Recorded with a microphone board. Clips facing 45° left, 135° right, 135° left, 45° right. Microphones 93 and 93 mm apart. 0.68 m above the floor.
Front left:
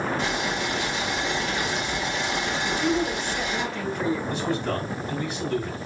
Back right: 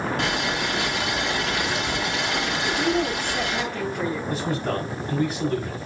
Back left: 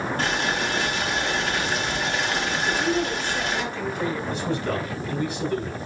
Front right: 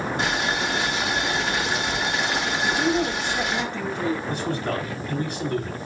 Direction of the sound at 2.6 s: 100° right.